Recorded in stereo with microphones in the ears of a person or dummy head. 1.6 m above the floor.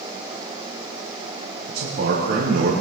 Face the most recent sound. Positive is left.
turn(degrees=-60)  # may be behind; listen again after turning